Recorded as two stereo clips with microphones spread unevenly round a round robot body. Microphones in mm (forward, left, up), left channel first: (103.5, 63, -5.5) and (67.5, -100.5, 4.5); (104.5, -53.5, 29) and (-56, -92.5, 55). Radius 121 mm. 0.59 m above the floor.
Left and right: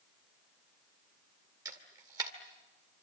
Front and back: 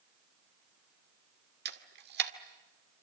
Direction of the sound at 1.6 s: 175° right.